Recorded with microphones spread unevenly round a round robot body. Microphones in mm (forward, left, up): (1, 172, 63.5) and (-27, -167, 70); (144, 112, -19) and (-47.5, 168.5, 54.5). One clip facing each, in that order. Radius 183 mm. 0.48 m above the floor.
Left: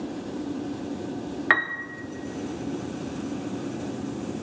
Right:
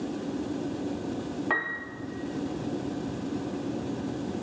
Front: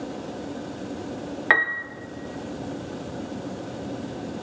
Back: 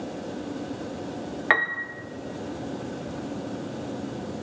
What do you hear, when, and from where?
1.5 s a piano: 55° left, 0.7 m